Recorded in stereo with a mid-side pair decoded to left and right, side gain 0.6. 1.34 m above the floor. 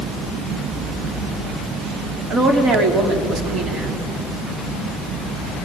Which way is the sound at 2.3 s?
45° right.